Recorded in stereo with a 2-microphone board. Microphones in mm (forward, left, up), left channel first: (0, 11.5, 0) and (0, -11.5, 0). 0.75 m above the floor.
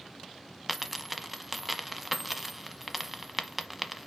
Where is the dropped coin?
5° right (ahead or behind), 1.0 m.